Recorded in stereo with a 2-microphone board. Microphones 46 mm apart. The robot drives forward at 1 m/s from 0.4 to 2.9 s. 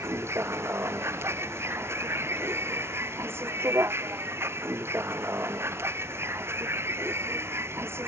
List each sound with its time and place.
0.0 s a vehicle: 65° right (ahead or behind); by 8.1 s 60° right (ahead or behind)